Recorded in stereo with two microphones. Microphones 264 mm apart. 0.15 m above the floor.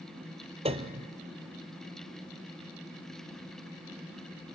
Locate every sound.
0.7 s a piano: 25° right (ahead or behind), 1.1 m